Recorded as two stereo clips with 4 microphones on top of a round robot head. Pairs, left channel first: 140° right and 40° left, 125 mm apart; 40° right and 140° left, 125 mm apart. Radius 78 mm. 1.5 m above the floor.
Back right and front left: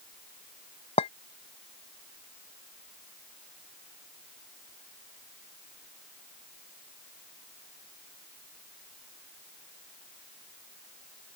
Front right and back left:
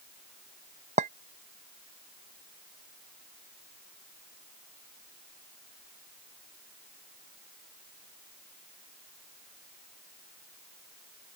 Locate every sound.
1.0 s a clink: 175° left